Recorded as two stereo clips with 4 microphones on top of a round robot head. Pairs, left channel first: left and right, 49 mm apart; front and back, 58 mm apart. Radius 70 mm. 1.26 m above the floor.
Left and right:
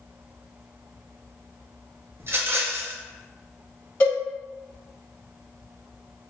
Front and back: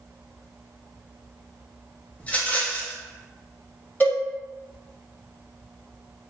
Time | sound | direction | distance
2.2 | a rattle | 65° right | 0.5 m
4.0 | a cowbell | 50° left | 1.8 m